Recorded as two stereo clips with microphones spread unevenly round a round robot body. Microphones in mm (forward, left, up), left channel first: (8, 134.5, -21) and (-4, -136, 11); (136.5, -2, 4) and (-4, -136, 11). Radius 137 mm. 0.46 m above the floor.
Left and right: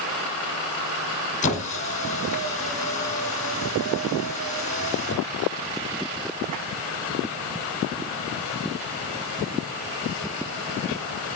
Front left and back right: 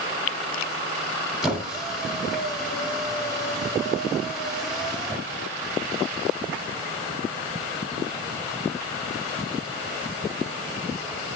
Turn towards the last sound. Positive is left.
turn(degrees=135)